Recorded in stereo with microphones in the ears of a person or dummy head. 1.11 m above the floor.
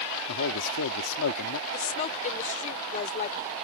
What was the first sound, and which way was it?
A man speaking, 85° left.